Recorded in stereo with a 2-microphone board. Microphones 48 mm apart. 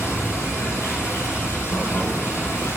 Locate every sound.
0.0 s running water: 80° left, 2 m